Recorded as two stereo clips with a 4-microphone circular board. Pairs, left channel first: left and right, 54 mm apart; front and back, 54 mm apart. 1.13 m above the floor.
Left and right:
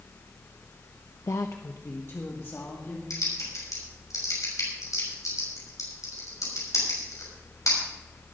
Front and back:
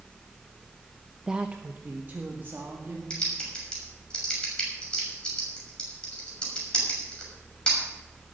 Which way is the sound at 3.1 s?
75° left.